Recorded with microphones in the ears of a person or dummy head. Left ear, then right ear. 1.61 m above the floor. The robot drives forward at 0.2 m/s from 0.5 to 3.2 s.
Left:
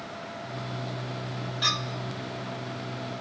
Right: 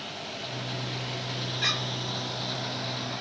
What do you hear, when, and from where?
1.6 s a clink: 20° right (ahead or behind), 1.8 m; by 3.2 s 15° right (ahead or behind), 2 m